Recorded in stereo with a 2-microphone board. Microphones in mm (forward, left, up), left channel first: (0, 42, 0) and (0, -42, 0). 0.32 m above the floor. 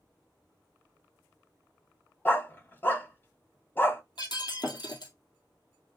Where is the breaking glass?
65° left (ahead or behind), 1.7 m.